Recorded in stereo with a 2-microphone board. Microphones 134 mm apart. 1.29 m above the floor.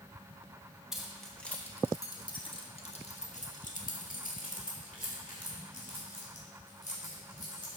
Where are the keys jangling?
5° right (ahead or behind), 1.8 m; by 7.8 s 75° left (ahead or behind), 4 m.